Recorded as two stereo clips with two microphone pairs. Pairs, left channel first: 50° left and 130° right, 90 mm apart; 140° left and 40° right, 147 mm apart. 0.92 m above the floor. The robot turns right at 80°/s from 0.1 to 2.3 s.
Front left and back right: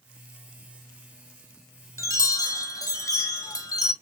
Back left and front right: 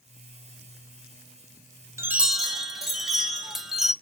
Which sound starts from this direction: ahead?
A chime, at 2.0 s.